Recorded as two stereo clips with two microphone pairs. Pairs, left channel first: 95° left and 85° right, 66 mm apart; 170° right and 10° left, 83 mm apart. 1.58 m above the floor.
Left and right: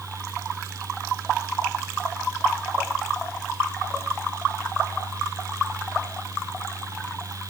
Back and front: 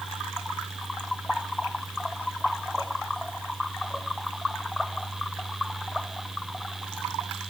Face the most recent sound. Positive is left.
No sound to turn to.